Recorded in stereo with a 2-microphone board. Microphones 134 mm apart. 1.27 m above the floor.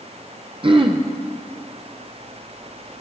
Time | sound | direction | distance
0.6 | throat clearing | 40° right (ahead or behind) | 0.7 m